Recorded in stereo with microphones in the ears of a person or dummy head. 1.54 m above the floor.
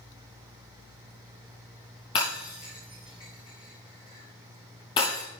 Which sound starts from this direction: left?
Breaking glass, at 2.1 s.